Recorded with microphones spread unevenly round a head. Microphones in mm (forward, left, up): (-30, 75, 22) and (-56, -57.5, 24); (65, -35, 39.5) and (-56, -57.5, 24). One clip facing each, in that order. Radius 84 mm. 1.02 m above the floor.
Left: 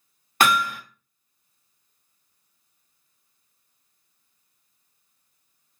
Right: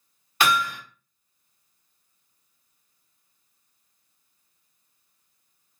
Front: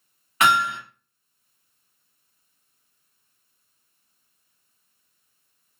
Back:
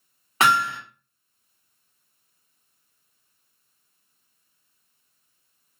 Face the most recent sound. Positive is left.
turn(degrees=125)